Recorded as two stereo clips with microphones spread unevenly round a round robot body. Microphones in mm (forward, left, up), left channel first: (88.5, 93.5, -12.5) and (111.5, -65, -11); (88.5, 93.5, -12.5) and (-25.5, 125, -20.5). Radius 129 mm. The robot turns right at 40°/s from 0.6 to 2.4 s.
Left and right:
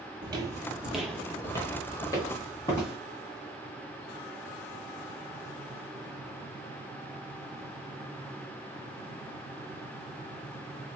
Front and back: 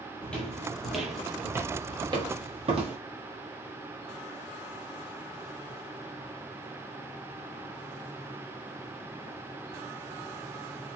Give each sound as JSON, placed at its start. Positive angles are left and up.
{"t": 0.2, "sound": "footsteps", "azimuth_deg": -80, "distance_m": 0.9}